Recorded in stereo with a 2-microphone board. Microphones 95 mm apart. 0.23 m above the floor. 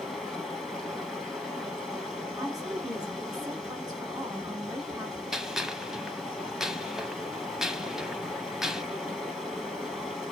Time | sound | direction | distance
0.0 | running water | centre (ahead or behind) | 1.9 m
2.4 | a woman speaking | 40° right (ahead or behind) | 1.7 m
5.3 | a gunshot | 5° right (ahead or behind) | 0.5 m